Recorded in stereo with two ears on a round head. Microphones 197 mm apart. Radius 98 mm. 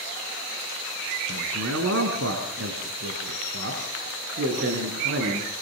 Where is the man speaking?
75° right (ahead or behind), 5.5 m; by 5.5 s 55° right (ahead or behind), 7.5 m.